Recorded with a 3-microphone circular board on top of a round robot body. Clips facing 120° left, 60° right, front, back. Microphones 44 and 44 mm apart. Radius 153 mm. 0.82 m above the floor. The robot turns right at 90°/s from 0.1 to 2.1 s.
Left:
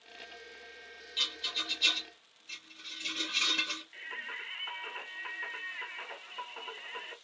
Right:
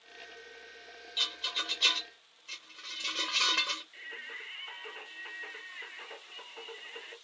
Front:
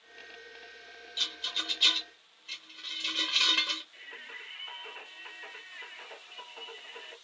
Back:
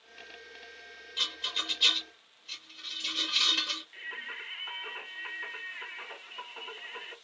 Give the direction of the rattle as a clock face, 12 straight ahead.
5 o'clock.